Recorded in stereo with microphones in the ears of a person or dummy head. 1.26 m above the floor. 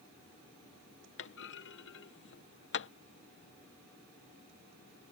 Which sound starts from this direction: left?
A clunk, at 1.2 s.